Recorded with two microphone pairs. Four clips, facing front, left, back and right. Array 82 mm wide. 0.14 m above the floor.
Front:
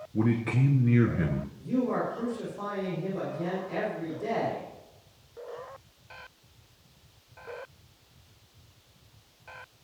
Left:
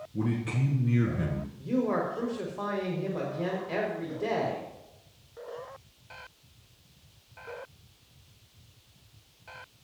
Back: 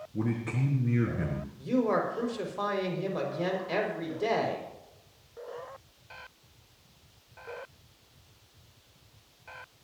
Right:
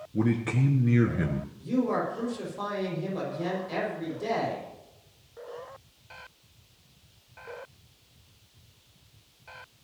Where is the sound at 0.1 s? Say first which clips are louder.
Right 4 dB, front 5 dB; 55° right, 1.6 m.